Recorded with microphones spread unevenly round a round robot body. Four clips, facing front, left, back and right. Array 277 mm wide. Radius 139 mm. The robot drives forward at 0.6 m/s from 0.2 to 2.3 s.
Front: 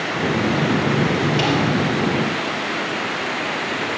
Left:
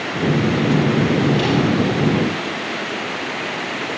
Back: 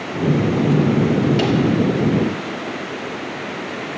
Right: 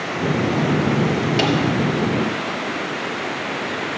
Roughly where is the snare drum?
Right.